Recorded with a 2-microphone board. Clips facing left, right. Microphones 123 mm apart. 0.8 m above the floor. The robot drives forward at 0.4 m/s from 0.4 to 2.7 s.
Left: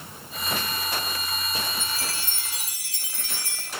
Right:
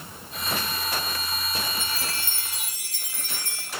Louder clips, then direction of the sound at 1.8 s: Even; 55° right (ahead or behind).